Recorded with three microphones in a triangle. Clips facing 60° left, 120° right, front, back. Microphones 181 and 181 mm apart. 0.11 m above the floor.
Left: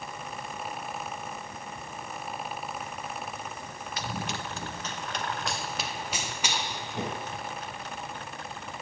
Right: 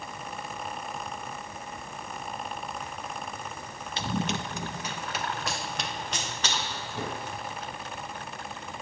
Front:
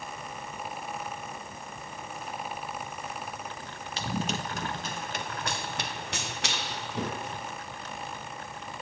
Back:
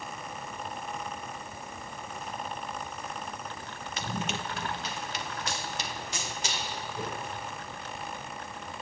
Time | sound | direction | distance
4.0 | running footsteps | 60° right | 2.5 m